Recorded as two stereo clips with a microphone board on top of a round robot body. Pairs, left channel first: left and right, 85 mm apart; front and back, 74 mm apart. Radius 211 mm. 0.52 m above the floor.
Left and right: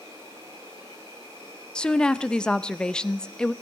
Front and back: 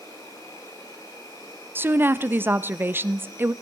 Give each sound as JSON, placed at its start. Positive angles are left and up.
{"t": 0.0, "sound": "an insect", "azimuth_deg": -45, "distance_m": 8.5}
{"t": 1.8, "sound": "a woman speaking", "azimuth_deg": 160, "distance_m": 0.6}